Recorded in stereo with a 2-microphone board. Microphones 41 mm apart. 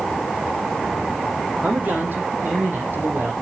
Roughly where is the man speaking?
Right.